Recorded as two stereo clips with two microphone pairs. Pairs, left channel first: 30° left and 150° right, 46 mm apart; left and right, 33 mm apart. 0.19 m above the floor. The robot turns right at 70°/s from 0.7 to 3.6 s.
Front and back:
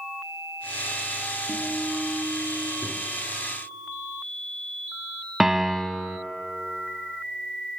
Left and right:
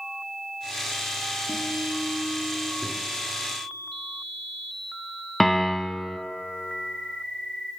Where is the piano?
155° left, 0.9 m.